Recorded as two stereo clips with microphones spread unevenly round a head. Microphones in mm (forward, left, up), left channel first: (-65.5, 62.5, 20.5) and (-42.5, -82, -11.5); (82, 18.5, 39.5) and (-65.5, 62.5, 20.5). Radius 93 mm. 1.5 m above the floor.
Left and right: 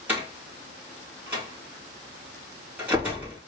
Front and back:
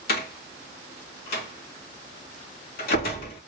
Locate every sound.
0.1 s a door slam: straight ahead, 1.8 m